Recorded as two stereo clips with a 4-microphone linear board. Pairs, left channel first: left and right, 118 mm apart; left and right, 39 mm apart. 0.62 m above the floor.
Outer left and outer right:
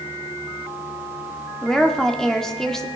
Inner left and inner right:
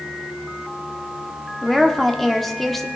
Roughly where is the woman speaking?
Centre.